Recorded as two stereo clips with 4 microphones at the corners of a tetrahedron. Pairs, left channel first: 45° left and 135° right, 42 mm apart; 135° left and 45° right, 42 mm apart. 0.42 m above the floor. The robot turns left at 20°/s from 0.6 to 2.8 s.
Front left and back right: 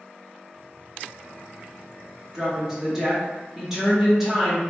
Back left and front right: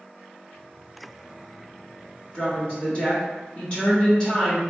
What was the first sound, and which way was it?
A woman speaking, 160° left.